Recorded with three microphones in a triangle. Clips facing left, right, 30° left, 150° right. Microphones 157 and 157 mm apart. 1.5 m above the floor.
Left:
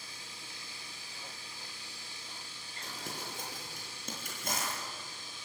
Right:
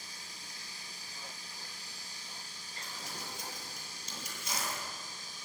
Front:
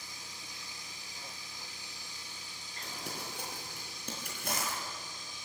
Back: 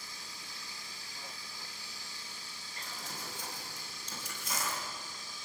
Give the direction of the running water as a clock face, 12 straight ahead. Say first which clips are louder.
Left 1 dB, even; 1 o'clock.